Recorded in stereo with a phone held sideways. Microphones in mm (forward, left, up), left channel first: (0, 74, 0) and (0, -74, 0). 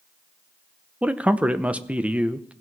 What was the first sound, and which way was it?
A man speaking, 10° right (ahead or behind).